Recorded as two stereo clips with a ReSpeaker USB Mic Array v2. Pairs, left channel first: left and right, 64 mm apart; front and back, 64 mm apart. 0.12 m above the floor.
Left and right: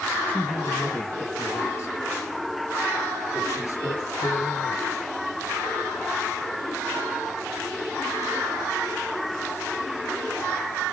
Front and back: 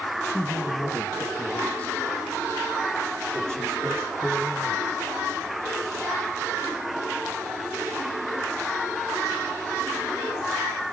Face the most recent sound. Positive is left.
turn(degrees=85)